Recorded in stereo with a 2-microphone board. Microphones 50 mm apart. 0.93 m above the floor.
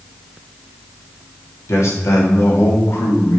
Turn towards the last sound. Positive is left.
turn(degrees=65)  # may be behind; listen again after turning